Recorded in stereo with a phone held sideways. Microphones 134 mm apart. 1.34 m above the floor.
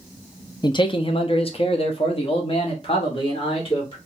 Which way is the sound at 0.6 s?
35° left (ahead or behind).